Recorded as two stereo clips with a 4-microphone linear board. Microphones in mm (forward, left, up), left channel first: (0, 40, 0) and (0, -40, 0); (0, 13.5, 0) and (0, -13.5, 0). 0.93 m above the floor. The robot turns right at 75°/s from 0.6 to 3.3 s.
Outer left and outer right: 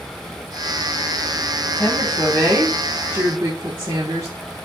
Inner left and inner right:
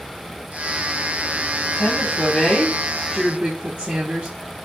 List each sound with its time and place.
1.8 s a woman speaking: 145° left, 1.9 m; by 4.3 s 95° right, 1.9 m